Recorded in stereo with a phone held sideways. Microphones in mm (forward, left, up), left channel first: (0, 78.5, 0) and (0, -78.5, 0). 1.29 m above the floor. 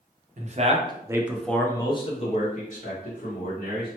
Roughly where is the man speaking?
Right.